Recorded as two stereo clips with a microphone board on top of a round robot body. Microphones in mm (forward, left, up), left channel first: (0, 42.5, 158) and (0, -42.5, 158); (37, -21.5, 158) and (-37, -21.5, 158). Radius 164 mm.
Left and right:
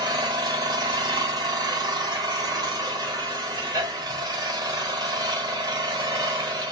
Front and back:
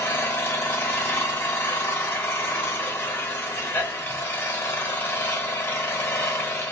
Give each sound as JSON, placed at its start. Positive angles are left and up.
{"t": 0.0, "sound": "an engine running", "azimuth_deg": -60, "distance_m": 1.4}